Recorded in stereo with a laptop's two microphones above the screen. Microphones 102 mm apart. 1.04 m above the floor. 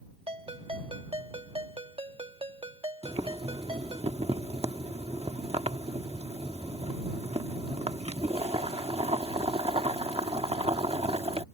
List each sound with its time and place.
0.3 s a ringtone: 65° right (ahead or behind)
3.0 s boiling: 75° right (ahead or behind)